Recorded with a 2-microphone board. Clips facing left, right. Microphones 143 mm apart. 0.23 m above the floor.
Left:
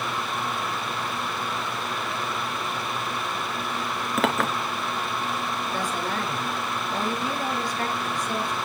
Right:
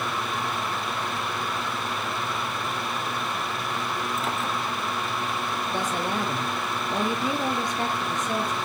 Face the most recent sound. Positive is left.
turn(degrees=-20)  # may be behind; listen again after turning